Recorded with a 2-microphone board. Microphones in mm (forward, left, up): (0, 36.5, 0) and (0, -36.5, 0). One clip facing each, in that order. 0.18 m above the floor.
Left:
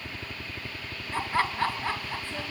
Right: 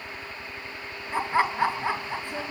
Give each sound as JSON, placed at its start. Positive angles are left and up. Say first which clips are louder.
{"t": 0.0, "sound": "a helicopter", "louder": "right 1 dB", "side_deg": 35}
{"t": 1.1, "sound": "laughter", "louder": "right 3 dB", "side_deg": -15}